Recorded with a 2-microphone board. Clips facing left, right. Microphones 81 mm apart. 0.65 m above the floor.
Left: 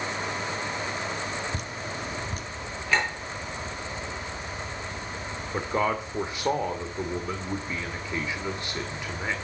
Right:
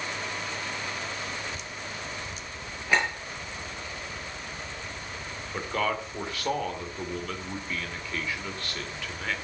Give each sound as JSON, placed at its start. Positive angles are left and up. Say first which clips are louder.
{"t": 1.5, "sound": "dripping", "louder": "left 4 dB", "side_deg": 50, "distance_m": 0.9}
{"t": 2.9, "sound": "a clink", "louder": "even", "side_deg": -15, "distance_m": 8.5}
{"t": 5.5, "sound": "a man speaking", "louder": "left 3 dB", "side_deg": 20, "distance_m": 2.0}